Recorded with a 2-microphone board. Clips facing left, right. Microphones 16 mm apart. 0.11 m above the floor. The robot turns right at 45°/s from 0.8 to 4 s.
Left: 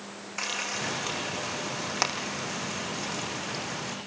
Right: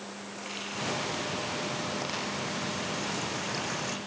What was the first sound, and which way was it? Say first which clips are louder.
Frying: left 5 dB; 65° left (ahead or behind).